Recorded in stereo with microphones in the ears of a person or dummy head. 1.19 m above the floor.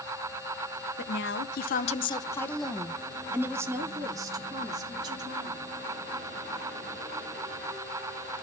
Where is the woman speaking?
60° left (ahead or behind), 1.1 m; by 5.6 s 25° right (ahead or behind), 3.5 m.